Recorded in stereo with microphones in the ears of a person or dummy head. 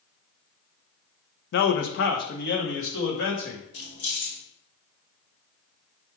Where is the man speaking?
60° left (ahead or behind), 0.5 m.